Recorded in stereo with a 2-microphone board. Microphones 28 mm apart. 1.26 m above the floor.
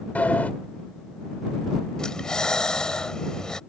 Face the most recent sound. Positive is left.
turn(degrees=25)  # may be behind; listen again after turning